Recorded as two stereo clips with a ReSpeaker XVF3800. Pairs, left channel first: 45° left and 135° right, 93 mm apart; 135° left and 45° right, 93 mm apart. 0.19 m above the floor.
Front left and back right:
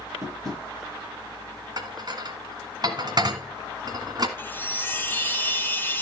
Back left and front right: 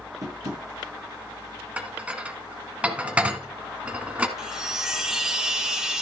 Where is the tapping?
90° right, 3 m.